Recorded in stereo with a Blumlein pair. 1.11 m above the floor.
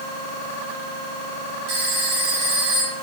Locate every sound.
1.7 s a phone ringing: 50° right, 2.5 m